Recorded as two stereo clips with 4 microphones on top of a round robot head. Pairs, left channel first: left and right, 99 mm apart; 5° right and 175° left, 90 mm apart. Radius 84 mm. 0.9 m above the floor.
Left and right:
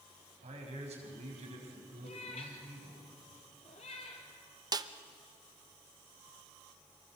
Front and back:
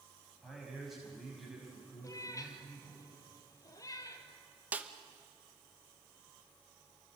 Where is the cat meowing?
45° left, 2.5 m.